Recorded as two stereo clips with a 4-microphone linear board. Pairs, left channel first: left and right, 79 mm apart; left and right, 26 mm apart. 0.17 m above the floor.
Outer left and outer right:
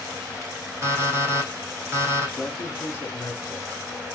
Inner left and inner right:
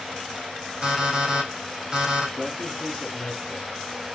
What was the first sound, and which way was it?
An alarm clock, 35° right (ahead or behind).